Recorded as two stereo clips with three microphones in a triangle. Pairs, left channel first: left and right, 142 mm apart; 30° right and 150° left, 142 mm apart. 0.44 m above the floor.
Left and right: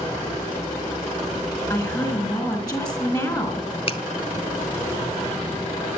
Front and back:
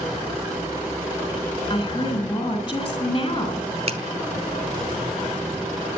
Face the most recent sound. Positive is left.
turn(degrees=125)